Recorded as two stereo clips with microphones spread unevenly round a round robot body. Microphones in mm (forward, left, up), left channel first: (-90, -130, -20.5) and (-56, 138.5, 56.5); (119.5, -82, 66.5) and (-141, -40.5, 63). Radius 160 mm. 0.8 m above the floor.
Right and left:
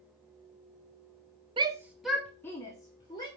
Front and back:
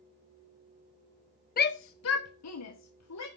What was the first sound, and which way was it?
A shout, straight ahead.